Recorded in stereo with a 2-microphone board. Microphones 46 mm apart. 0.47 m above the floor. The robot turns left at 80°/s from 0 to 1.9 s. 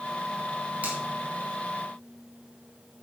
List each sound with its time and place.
0.8 s a finger snap: 30° right (ahead or behind), 3 m; by 1.0 s 20° right (ahead or behind), 3 m